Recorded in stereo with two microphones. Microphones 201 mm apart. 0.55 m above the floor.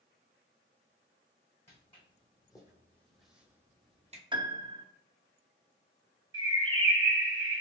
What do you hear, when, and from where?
1.7 s footsteps: 30° left (ahead or behind), 1.6 m; by 4.2 s 35° right (ahead or behind), 0.9 m
4.3 s a piano: 20° right (ahead or behind), 0.5 m
6.3 s a bird: 65° right (ahead or behind), 0.6 m